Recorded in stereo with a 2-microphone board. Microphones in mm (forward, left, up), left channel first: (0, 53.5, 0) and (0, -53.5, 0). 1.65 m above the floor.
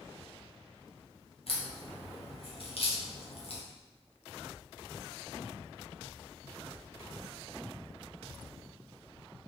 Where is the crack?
60° left (ahead or behind), 1.1 m.